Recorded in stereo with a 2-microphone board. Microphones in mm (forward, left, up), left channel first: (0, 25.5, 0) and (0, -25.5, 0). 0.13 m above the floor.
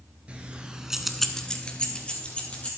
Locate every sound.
0.3 s keys jangling: 25° right (ahead or behind), 1.3 m; by 2.7 s 25° left (ahead or behind), 2.5 m